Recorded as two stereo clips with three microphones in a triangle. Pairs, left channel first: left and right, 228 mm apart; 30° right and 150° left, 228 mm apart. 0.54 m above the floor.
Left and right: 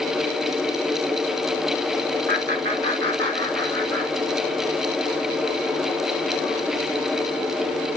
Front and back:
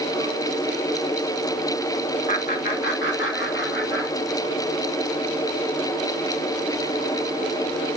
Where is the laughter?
70° right, 1.0 m; by 4.6 s 50° right, 3.5 m.